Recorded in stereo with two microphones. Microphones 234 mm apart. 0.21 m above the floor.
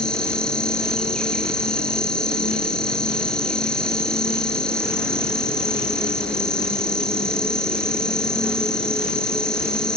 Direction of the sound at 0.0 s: 5° left (ahead or behind).